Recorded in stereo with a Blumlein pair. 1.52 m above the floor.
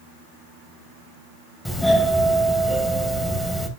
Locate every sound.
1.6 s a doorbell: 5° left, 2 m